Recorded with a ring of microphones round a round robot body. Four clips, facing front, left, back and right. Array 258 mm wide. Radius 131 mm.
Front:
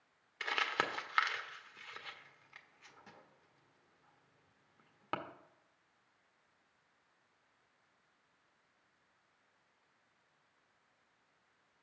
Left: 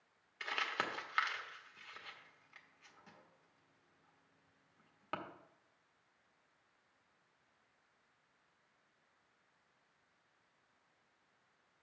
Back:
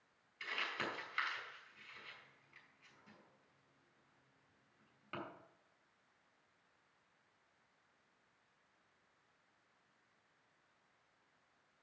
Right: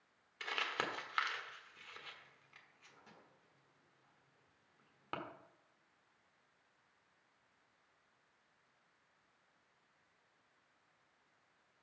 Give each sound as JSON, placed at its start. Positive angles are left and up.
{"t": 0.4, "sound": "crumpling", "azimuth_deg": -5, "distance_m": 1.4}